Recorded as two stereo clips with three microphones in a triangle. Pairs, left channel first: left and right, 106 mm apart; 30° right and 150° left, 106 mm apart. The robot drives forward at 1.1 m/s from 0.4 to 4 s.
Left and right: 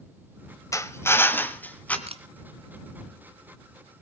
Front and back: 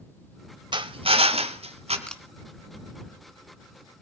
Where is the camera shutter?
110° right, 1.6 m; by 2.2 s 120° right, 1.6 m.